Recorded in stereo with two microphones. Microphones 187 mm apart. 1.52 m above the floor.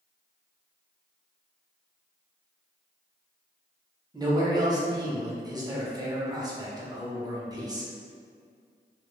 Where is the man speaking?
20° right (ahead or behind), 0.6 m.